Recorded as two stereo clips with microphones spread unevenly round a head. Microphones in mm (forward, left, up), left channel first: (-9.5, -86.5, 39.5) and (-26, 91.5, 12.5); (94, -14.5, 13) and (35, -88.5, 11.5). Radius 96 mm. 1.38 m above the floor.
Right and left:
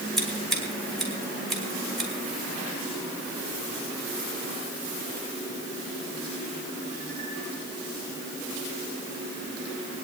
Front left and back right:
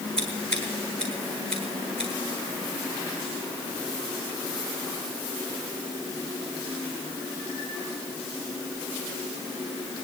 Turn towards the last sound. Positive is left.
turn(degrees=-170)